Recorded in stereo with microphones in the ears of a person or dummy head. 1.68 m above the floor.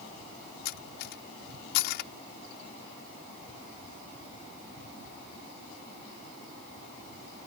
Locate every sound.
0.7 s cutlery clinking: 65° left (ahead or behind)